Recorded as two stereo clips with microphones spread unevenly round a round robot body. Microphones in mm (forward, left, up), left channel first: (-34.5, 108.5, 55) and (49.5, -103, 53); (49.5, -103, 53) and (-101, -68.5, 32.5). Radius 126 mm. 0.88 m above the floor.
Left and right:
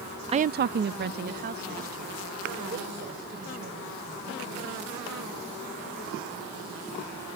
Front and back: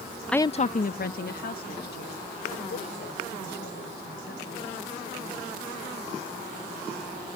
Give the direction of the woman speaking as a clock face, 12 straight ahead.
4 o'clock.